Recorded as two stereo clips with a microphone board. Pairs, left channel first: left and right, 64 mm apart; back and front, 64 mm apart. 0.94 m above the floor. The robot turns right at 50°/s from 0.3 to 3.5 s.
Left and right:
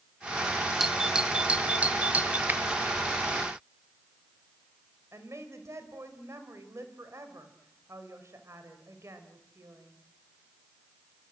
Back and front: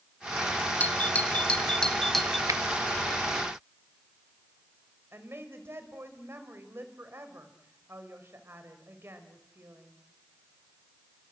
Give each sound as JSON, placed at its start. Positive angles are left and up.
{"t": 0.8, "sound": "a doorbell", "azimuth_deg": -170, "distance_m": 0.9}
{"t": 2.5, "sound": "a finger snap", "azimuth_deg": -30, "distance_m": 0.7}
{"t": 5.1, "sound": "a woman speaking", "azimuth_deg": -50, "distance_m": 4.0}